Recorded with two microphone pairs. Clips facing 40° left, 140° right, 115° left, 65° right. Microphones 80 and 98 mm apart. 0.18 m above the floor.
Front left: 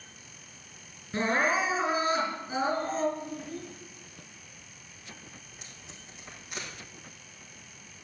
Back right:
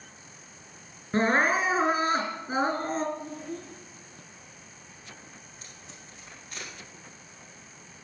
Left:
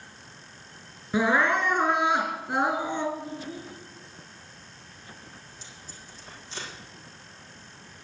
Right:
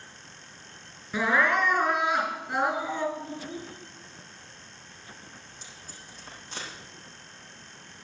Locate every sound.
1.1 s crying: 175° right, 3 m
3.2 s a child speaking: 100° right, 7 m
5.4 s tape being pulled: 30° right, 7.5 m